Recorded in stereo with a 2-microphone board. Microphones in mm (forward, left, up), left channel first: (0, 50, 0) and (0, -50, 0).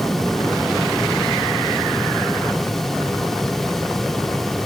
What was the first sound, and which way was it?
Only background noise.